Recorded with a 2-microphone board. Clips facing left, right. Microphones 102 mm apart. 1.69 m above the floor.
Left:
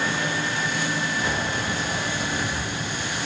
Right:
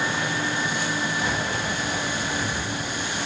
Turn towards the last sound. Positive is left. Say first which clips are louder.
# even
turn(degrees=-10)  # may be behind; listen again after turning